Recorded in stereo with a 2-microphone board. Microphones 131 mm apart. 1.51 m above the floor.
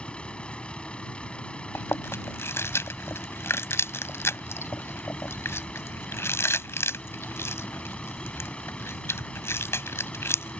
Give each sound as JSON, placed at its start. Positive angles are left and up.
{"t": 0.0, "sound": "a vehicle", "side_deg": 10}
{"t": 1.8, "sound": "chewing", "side_deg": 20}